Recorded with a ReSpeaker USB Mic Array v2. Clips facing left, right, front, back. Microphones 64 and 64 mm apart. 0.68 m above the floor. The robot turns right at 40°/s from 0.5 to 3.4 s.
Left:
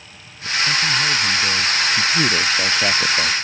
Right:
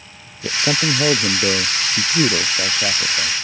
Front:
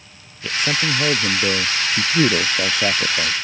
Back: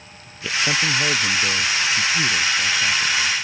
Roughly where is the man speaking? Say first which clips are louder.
Even, even; right.